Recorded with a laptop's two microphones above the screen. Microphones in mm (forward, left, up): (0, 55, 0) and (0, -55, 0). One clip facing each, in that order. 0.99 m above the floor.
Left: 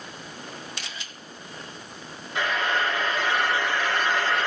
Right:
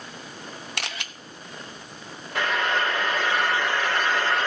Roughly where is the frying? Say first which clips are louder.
Right 1 dB; right.